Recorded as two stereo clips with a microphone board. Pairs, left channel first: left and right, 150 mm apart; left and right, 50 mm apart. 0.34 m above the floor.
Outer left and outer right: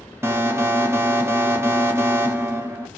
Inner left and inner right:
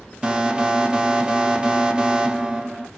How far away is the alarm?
About 0.6 m.